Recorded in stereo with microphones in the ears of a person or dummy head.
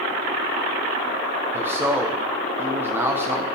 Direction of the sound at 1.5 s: 10° right (ahead or behind).